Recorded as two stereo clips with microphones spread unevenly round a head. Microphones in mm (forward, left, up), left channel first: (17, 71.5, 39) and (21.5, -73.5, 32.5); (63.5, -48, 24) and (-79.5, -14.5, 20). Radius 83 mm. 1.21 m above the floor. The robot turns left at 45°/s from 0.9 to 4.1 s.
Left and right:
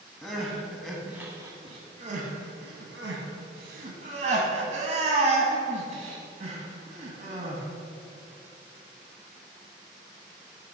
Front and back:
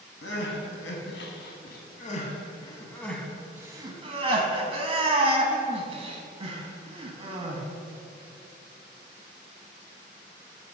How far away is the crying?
About 1.0 m.